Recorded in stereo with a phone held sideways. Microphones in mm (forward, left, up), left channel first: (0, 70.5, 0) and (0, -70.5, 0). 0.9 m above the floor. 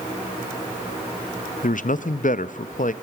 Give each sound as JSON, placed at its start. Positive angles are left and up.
{"t": 1.6, "sound": "a man speaking", "side_deg": 65, "distance_m": 0.6}